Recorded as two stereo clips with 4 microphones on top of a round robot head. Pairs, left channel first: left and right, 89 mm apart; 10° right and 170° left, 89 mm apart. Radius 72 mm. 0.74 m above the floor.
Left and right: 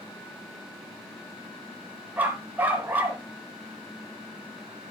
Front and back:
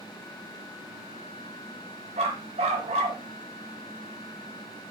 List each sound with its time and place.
2.2 s a dog barking: 160° right, 1.9 m